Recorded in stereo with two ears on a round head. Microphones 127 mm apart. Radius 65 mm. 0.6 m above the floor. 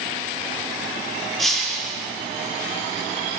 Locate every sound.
1.4 s breaking glass: centre (ahead or behind), 9.5 m